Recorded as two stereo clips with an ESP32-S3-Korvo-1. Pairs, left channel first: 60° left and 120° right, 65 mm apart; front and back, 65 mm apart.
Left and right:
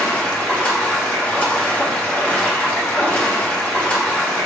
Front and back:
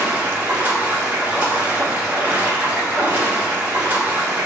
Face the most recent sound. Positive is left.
turn(degrees=120)